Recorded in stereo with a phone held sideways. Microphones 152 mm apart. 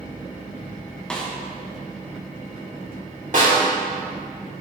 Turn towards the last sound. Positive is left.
turn(degrees=-60)  # may be behind; listen again after turning